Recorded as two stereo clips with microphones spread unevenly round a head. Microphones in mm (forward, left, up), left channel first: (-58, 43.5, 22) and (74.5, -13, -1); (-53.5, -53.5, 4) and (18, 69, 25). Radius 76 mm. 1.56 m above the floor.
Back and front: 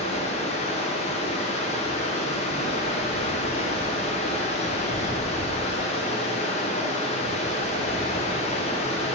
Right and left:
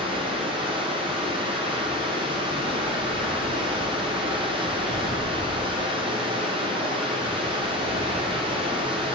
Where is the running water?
115° left, 1.0 m.